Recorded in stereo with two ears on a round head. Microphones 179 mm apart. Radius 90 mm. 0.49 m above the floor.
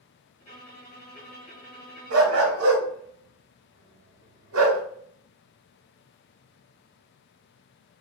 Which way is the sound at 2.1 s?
75° right (ahead or behind).